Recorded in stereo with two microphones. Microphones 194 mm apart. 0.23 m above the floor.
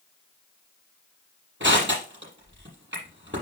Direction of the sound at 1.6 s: 75° right (ahead or behind).